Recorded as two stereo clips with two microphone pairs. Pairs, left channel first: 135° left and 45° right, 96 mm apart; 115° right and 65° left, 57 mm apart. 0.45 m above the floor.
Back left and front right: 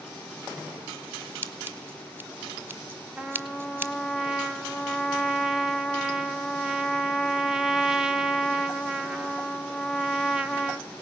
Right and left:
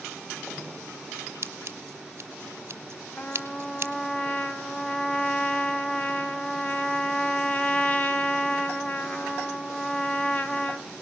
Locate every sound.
1.4 s scissors: 20° left, 1.5 m
3.2 s a trumpet: 110° right, 1.3 m